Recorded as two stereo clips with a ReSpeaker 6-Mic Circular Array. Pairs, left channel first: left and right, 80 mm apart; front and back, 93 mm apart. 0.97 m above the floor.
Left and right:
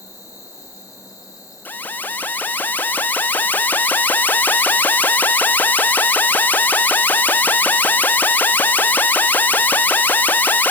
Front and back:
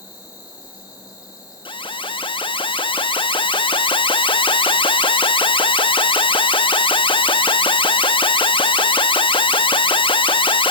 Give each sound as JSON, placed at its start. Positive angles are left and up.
{"t": 0.0, "sound": "an insect", "azimuth_deg": 40, "distance_m": 4.0}
{"t": 1.6, "sound": "an alarm", "azimuth_deg": 20, "distance_m": 0.9}